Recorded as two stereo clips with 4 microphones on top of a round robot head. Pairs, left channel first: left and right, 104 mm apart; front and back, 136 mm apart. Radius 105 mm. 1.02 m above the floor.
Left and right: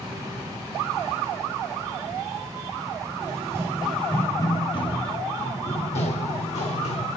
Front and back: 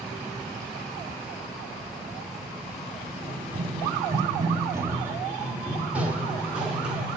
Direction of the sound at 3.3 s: 120° right.